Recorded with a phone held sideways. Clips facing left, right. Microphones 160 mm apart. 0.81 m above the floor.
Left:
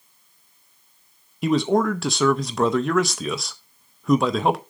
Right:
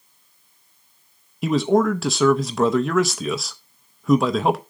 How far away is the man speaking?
About 0.6 m.